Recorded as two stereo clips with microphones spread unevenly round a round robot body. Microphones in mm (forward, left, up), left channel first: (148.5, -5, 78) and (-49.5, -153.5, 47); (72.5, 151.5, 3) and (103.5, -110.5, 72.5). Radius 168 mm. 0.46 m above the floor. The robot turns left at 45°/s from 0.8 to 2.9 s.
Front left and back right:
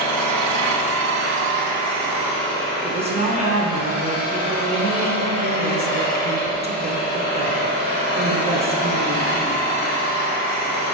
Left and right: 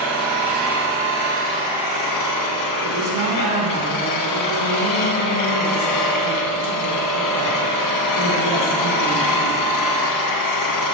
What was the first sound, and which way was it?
An engine running, 170° right.